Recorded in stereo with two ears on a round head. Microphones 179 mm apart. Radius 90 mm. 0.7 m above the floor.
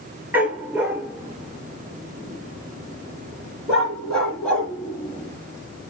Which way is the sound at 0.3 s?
10° right (ahead or behind).